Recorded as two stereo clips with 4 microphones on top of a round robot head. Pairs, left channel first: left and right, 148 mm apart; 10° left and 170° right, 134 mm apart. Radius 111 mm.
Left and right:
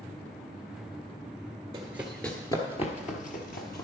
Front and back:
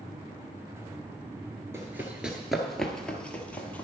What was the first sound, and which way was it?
Running footsteps, 115° right.